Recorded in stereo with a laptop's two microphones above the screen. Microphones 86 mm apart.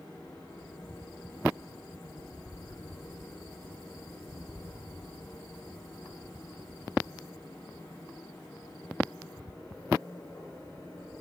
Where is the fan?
55° left (ahead or behind), 7 m.